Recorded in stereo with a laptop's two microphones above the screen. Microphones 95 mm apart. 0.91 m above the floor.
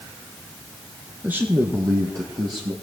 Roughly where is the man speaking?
Centre.